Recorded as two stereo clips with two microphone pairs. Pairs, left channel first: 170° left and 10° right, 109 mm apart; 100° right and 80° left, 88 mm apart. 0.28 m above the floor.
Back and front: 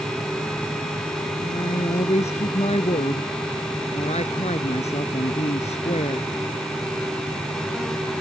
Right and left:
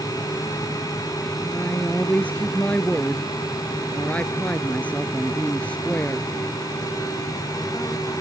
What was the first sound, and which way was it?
A woman speaking, 175° right.